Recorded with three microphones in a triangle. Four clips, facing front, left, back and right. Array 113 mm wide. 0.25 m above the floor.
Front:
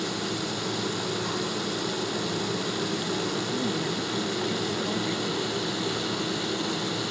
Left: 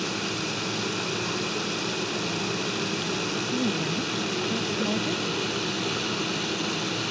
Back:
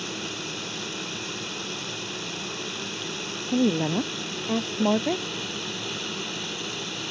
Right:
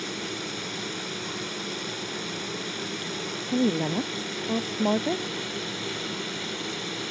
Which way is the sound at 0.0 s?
80° left.